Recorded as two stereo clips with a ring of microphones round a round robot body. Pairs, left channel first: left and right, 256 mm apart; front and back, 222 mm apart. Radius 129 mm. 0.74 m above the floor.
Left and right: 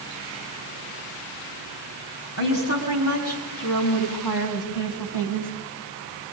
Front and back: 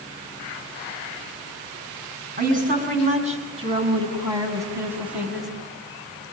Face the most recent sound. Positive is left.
turn(degrees=90)